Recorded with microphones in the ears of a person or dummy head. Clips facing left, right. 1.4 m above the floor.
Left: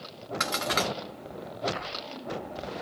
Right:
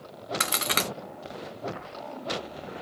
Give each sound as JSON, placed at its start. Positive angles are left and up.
{"t": 0.4, "sound": "a crack", "side_deg": -40, "distance_m": 0.6}